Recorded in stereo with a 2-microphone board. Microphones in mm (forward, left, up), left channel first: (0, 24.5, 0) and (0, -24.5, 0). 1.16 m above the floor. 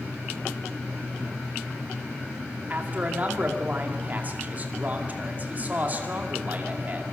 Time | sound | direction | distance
2.7 | a man speaking | 35° right (ahead or behind) | 2.5 m